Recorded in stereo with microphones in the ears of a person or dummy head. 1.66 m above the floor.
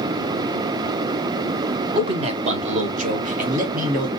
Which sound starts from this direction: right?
A man speaking, at 1.9 s.